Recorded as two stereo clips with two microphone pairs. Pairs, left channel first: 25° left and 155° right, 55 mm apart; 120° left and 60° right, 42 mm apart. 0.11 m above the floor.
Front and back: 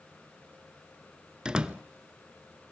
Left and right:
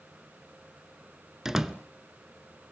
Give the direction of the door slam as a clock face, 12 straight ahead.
4 o'clock.